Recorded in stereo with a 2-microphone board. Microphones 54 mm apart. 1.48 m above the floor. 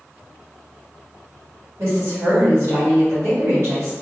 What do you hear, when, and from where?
1.8 s a woman speaking: 60° right (ahead or behind), 1.8 m